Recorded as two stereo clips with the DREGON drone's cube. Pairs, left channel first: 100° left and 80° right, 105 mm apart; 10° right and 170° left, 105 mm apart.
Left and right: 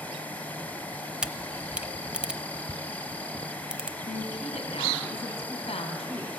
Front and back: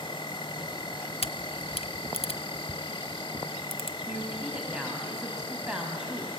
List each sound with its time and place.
0.0 s an insect: 25° left, 0.8 m
1.2 s a camera shutter: straight ahead, 0.6 m
4.1 s a woman speaking: 90° left, 3 m